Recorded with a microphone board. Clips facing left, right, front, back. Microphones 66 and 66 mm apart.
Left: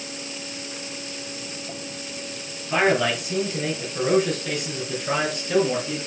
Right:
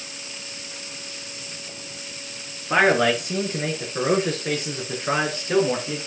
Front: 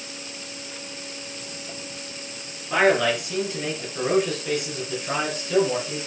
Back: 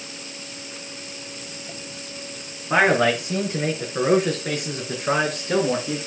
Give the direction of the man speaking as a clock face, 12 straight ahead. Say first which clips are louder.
Right 2 dB, back 2 dB; 4 o'clock.